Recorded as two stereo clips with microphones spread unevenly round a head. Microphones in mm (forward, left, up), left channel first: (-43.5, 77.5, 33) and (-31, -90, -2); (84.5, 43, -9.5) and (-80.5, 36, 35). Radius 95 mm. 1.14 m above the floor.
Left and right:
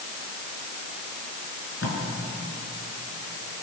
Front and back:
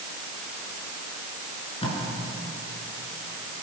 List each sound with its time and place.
1.8 s tape being pulled: 65° left, 6 m